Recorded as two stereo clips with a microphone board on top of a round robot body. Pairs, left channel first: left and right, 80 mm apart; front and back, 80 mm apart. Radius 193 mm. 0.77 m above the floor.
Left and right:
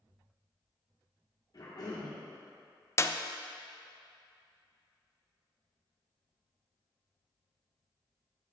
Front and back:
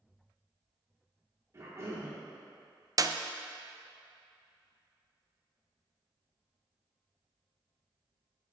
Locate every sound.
1.5 s a cough: 130° left, 2.5 m
3.0 s a clap: 140° left, 0.6 m